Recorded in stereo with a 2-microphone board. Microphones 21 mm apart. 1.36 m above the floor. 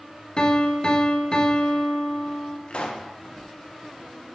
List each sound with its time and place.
0.4 s a piano: 40° left (ahead or behind), 0.7 m
2.7 s a pop: 55° left (ahead or behind), 0.7 m